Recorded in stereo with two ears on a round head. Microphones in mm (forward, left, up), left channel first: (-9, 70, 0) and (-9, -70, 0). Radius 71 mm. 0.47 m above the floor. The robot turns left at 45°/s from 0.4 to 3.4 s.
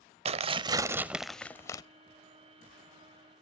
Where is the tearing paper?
140° right, 0.6 m; by 1.8 s 155° left, 0.6 m.